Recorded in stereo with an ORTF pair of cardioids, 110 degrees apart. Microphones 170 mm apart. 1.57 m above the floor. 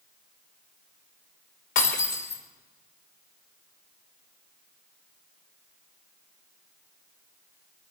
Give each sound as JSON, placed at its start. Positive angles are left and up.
{"t": 1.8, "sound": "breaking glass", "azimuth_deg": 60, "distance_m": 3.0}